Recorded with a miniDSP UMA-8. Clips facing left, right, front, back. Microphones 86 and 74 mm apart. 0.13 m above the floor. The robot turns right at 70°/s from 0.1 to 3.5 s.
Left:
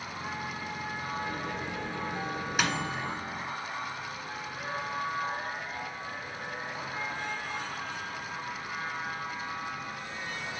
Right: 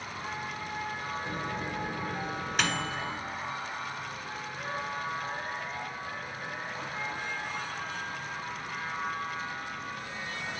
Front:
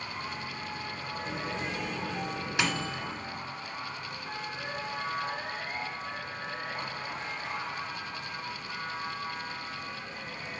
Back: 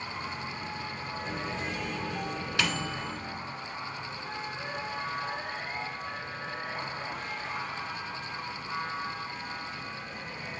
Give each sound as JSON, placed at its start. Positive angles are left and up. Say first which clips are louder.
{"t": 1.2, "sound": "a microwave", "louder": "even, even", "azimuth_deg": -75, "distance_m": 0.9}